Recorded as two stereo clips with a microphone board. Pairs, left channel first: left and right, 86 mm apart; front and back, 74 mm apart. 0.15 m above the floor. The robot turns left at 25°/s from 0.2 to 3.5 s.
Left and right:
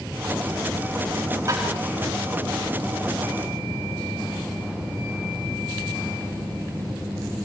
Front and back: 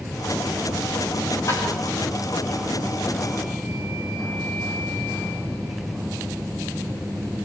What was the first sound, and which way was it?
Tapping, 40° right.